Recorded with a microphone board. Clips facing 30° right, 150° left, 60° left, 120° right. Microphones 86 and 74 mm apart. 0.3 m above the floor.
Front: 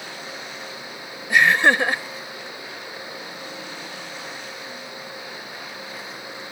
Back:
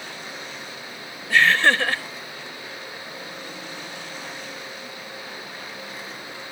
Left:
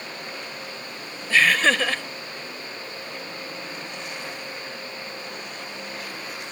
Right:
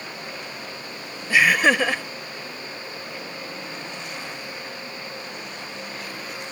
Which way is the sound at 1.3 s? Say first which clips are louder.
Front 1 dB, right 2 dB; 70° right.